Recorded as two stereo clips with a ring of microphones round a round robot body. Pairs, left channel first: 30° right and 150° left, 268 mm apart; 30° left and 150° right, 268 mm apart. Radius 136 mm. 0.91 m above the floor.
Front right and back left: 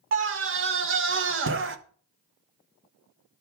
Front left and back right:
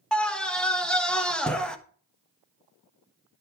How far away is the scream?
About 1.5 m.